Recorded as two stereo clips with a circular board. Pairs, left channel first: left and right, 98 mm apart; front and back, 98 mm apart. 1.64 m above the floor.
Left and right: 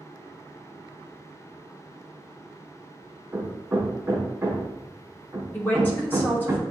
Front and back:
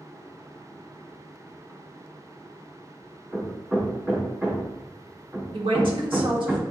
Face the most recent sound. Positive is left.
turn(degrees=160)